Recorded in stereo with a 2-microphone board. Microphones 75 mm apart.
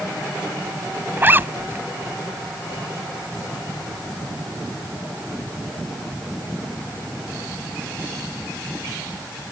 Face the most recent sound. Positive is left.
turn(degrees=-30)  # may be behind; listen again after turning